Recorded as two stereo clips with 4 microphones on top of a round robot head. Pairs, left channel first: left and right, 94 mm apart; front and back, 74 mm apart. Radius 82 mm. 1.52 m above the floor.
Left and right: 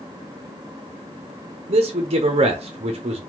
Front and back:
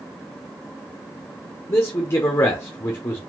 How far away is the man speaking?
About 0.7 m.